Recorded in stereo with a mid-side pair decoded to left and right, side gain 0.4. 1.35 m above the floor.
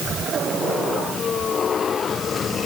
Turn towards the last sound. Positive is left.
No sound to turn to.